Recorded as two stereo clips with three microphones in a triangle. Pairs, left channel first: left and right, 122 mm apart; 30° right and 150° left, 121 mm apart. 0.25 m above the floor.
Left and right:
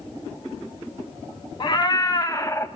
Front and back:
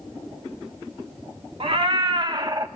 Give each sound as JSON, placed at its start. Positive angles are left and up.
{"t": 1.6, "sound": "a cat meowing", "azimuth_deg": 130, "distance_m": 1.1}